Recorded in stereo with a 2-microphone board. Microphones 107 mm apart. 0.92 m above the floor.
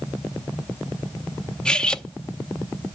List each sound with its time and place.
1.6 s cutlery clinking: 10° left (ahead or behind), 0.6 m